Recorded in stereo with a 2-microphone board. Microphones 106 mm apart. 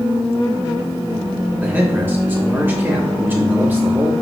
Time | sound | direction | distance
1.6 | a man speaking | 20° right (ahead or behind) | 3 m